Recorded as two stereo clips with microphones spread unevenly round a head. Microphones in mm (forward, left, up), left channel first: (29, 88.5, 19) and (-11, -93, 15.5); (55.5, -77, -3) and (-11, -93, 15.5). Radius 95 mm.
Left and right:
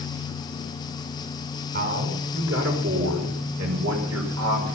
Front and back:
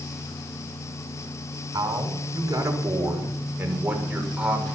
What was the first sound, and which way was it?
A man speaking, 140° right.